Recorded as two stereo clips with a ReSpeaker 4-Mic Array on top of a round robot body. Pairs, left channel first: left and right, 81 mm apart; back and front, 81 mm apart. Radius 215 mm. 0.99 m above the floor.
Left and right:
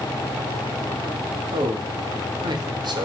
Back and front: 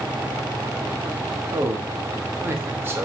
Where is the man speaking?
60° right, 2.5 m.